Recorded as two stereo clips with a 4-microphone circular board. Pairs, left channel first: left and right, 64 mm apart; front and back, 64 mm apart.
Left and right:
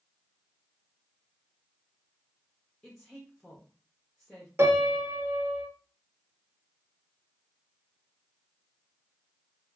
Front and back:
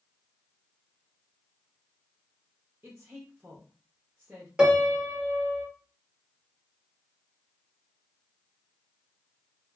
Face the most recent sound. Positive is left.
turn(degrees=-110)